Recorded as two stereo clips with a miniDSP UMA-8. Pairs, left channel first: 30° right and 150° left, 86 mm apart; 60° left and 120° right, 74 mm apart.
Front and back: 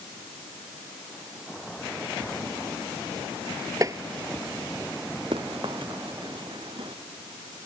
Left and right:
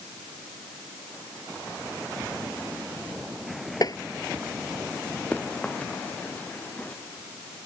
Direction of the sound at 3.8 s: 95° left.